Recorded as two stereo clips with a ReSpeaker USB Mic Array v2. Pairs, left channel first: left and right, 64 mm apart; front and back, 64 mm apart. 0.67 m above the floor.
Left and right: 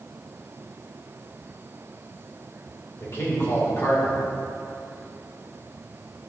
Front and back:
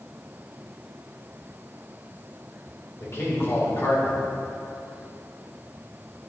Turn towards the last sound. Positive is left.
turn(degrees=45)